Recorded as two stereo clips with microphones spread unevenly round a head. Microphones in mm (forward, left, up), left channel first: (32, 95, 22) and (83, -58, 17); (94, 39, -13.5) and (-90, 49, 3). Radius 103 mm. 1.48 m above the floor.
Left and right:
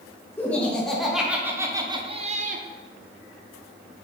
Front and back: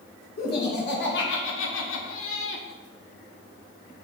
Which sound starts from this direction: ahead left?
Laughter, at 0.4 s.